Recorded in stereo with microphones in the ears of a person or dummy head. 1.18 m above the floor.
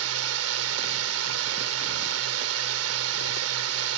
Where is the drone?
75° right (ahead or behind).